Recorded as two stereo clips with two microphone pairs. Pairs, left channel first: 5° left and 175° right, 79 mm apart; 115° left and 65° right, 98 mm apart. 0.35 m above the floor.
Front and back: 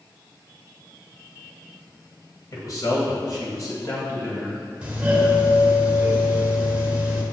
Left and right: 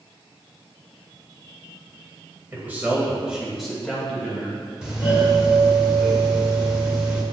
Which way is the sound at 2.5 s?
Straight ahead.